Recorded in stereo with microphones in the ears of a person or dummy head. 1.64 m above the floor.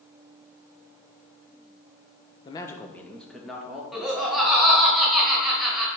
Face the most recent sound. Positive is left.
turn(degrees=0)  # may be behind; listen again after turning